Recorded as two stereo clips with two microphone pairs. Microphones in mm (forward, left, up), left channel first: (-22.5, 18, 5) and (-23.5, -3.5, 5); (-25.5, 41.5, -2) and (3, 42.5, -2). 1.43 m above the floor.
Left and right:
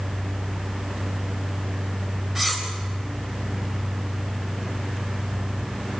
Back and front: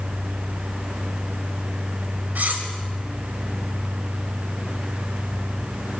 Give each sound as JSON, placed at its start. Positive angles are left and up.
{"t": 2.4, "sound": "cutlery clinking", "azimuth_deg": -20, "distance_m": 4.0}